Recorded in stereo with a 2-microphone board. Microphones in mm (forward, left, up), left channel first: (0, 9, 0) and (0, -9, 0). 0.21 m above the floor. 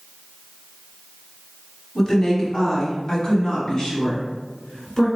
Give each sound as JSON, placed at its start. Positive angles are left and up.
{"t": 1.9, "sound": "a woman speaking", "side_deg": 30, "distance_m": 1.3}